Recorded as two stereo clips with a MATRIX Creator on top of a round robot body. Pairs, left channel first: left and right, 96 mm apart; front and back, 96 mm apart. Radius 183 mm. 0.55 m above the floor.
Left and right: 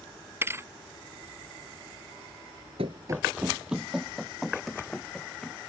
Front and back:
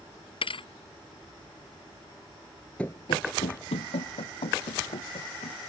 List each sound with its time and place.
0.4 s a thud: 25° right
2.8 s running footsteps: 80° right; by 5.6 s 5° left